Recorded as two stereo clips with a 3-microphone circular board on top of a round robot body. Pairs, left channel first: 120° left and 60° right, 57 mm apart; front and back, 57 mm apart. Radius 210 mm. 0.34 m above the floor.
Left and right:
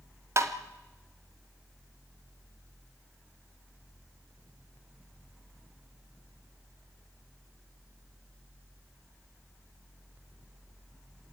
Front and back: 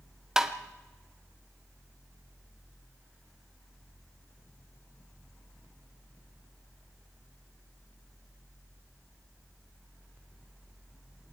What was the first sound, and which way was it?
Tapping, 100° right.